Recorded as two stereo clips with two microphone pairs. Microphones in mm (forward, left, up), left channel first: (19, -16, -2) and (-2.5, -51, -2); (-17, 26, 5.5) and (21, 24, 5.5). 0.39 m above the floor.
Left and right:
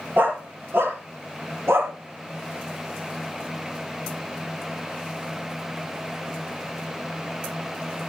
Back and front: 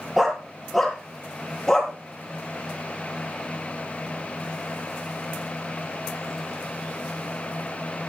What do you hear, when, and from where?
0.2 s a dog barking: 90° right, 4.5 m; by 1.9 s 110° right, 5 m